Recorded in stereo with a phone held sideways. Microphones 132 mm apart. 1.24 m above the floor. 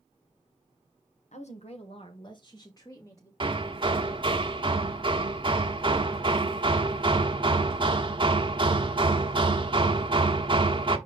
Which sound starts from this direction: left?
A woman speaking, at 1.3 s.